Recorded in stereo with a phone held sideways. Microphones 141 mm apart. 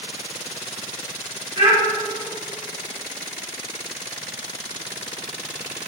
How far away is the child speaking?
About 1.5 m.